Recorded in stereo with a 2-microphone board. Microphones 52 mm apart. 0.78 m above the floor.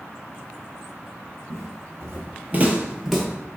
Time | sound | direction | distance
1.5 | footsteps | 60° right (ahead or behind) | 1.4 m